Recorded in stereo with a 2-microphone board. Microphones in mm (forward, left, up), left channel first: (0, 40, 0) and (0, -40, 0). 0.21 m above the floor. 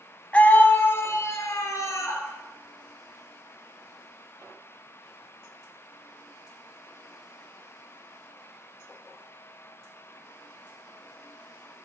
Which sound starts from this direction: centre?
A scream, at 0.3 s.